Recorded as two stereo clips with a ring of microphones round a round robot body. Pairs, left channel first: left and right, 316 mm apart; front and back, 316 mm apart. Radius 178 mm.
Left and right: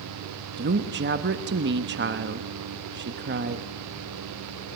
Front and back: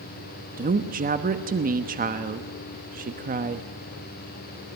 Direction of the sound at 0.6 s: 130° right.